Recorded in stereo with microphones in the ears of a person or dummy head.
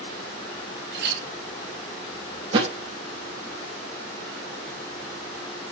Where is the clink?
55° right (ahead or behind), 1.4 m.